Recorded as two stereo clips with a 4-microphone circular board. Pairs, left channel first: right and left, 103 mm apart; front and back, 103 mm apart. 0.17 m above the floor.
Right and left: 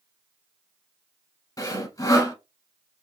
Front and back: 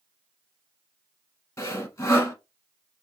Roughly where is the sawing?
Ahead right.